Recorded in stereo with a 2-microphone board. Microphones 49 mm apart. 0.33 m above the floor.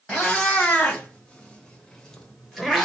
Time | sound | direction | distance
0.1 | a cat meowing | 25° left (ahead or behind) | 1.1 m